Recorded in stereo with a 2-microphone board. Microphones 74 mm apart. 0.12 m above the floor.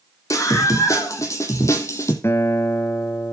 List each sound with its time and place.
0.3 s a scream: 45° left (ahead or behind), 6.5 m; by 2.1 s 40° left (ahead or behind), 5 m
2.2 s a guitar: 35° left (ahead or behind), 2 m